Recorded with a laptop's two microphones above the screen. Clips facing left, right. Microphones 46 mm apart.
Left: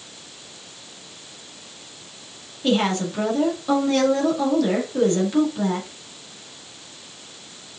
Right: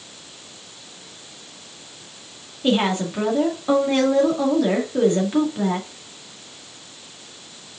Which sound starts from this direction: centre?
A woman speaking, at 2.6 s.